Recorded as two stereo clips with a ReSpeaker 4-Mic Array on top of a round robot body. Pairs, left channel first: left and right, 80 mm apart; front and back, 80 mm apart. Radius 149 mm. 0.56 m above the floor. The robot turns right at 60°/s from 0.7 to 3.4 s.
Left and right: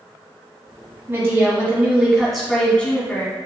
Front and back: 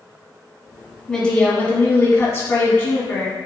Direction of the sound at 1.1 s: 70° right.